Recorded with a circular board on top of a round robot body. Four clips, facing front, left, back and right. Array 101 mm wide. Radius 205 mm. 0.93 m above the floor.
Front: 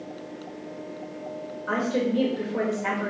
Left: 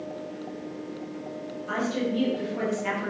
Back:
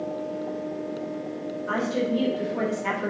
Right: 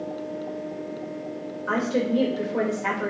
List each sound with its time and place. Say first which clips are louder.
1.7 s a woman speaking: right 4 dB, front 1 dB; 65° right, 4 m